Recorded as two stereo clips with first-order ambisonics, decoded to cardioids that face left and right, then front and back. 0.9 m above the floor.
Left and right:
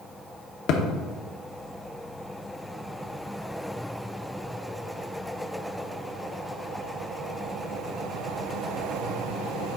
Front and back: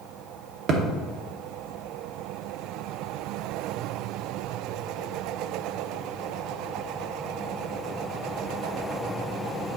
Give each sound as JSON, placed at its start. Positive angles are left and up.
{"t": 0.7, "sound": "a thud", "azimuth_deg": 130, "distance_m": 0.8}